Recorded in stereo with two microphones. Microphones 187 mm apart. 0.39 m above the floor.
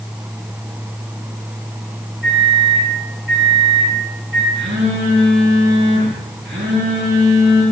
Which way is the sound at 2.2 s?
75° right (ahead or behind).